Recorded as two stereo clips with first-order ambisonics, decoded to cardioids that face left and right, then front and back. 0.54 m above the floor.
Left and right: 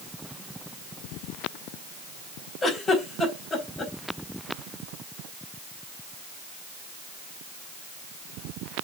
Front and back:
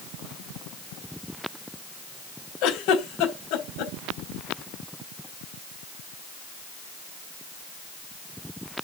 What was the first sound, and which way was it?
A giggle, 15° left.